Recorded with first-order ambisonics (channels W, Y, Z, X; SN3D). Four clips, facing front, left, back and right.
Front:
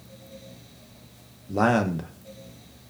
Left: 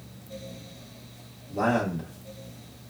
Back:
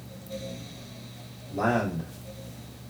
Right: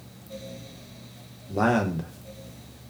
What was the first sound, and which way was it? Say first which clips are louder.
A man speaking: right 2 dB, front 4 dB; 20° right.